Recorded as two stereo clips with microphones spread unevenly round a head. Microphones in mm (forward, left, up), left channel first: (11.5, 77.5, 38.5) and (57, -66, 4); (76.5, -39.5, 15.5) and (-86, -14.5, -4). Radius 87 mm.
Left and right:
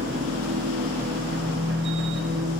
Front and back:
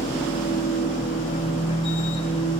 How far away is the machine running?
About 0.9 m.